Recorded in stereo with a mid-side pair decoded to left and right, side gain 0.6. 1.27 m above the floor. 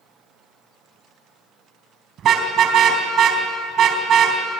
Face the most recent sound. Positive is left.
turn(degrees=-50)